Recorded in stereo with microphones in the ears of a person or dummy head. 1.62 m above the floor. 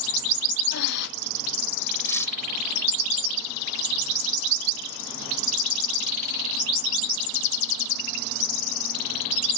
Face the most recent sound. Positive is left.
turn(degrees=15)  # may be behind; listen again after turning